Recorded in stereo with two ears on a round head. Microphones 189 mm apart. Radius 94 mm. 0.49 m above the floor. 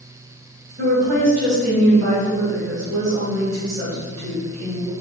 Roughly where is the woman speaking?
Right.